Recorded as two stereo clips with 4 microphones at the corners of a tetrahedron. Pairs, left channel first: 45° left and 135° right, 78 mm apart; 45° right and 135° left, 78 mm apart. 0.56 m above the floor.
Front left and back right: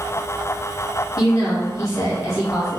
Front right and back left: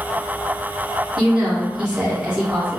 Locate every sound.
1.2 s a woman speaking: 65° left, 0.8 m